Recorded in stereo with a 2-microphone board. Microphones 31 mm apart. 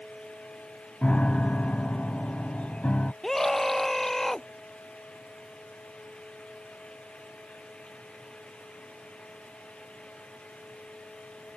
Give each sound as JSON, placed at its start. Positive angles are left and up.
{"t": 1.0, "sound": "a piano", "side_deg": 40}
{"t": 3.2, "sound": "a scream", "side_deg": 5}